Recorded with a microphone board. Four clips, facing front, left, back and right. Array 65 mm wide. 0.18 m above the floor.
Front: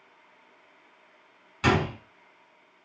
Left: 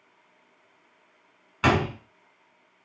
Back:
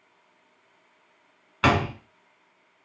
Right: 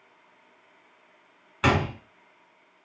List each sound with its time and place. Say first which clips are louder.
1.6 s a door slam: left 1 dB, back 2 dB; 170° left, 1.0 m